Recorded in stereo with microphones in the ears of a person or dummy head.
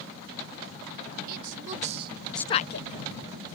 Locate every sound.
1.3 s a woman speaking: 50° right (ahead or behind); by 2.9 s 65° left (ahead or behind)